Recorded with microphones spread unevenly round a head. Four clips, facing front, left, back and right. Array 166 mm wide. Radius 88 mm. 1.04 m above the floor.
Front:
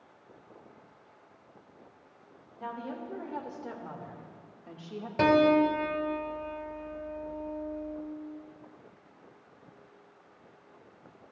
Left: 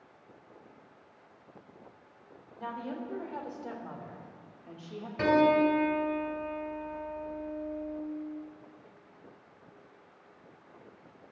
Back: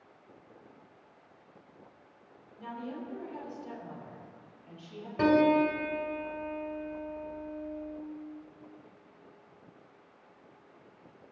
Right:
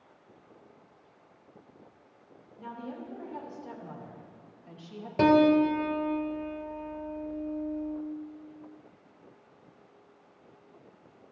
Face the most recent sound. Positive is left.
turn(degrees=-80)